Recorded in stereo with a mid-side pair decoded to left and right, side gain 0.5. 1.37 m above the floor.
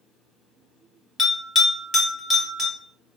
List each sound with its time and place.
1.2 s a bell: 35° left, 1.9 m